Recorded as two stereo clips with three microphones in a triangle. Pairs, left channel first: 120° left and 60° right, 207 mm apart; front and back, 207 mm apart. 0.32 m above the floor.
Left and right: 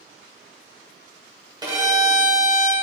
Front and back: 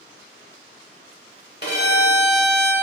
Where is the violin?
5° left, 1.1 m.